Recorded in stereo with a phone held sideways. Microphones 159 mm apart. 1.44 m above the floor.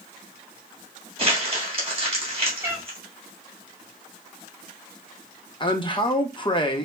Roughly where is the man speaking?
Left.